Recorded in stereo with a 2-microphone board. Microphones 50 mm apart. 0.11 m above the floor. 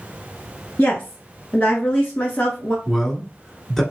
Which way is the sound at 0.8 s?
30° left (ahead or behind).